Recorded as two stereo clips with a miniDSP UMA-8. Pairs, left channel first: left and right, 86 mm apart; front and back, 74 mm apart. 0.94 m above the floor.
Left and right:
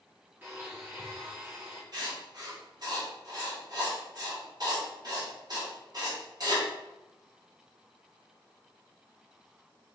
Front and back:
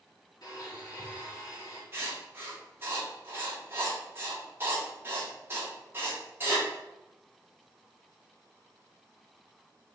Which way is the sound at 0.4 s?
25° right.